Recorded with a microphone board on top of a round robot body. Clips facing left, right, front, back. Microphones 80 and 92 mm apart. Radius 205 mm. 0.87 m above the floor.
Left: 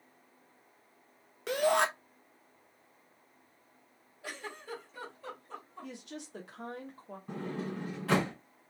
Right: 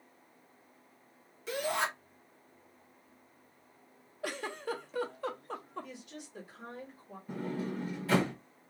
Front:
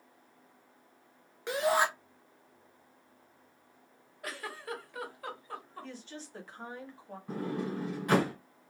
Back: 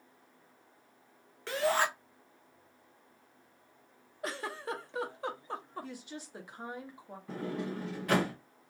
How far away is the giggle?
About 0.6 m.